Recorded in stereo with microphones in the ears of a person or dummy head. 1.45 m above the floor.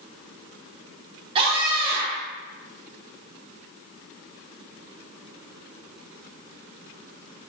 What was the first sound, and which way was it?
A scream, 30° right (ahead or behind).